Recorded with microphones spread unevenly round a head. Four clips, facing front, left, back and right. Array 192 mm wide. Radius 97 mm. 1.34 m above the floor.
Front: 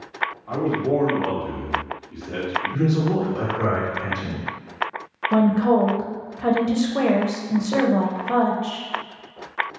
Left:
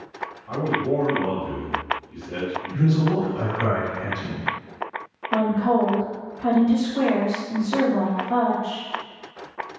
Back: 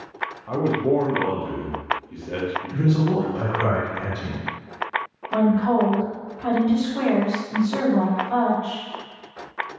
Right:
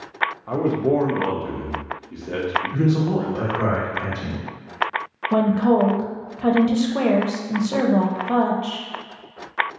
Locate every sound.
0.5 s a man speaking: 105° right, 0.7 m
2.7 s a man speaking: 130° right, 1.4 m
5.3 s a woman speaking: 50° right, 0.6 m